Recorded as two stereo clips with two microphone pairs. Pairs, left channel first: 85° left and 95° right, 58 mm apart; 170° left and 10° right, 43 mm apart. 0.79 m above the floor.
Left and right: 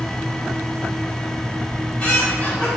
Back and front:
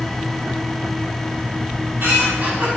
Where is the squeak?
20° left, 1.8 m.